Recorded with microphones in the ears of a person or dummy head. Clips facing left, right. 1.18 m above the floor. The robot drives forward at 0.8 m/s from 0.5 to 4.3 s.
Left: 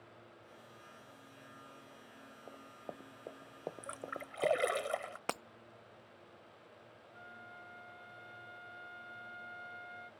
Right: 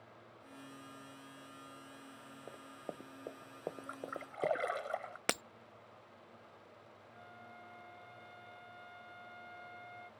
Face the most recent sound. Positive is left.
turn(degrees=5)  # may be behind; listen again after turning